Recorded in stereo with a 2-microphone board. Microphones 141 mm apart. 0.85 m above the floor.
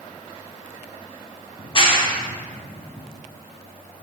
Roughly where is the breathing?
No breathing in this recording.